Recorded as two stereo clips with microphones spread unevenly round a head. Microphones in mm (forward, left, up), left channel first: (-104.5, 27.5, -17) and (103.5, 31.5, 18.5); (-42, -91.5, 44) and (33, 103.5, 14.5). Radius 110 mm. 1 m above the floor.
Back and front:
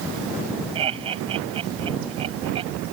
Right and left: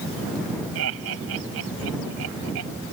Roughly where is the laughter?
Ahead left.